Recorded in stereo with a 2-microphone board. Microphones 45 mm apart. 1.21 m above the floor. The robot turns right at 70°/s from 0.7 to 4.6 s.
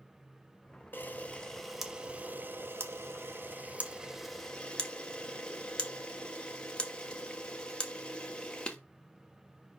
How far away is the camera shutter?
About 1.0 m.